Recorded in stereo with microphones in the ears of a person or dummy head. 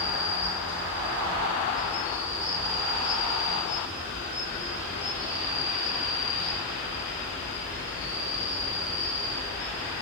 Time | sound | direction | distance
0.0 | an insect | 30° left (ahead or behind) | 0.9 m